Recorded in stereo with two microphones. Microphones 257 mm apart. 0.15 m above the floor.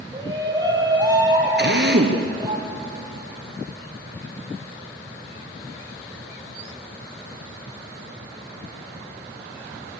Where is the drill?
45° right (ahead or behind), 2.5 m.